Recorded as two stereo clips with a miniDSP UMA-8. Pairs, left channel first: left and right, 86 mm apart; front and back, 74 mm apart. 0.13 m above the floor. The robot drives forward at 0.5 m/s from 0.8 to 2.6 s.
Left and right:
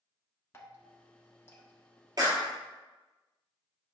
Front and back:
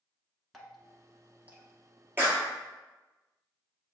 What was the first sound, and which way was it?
Dripping, 85° left.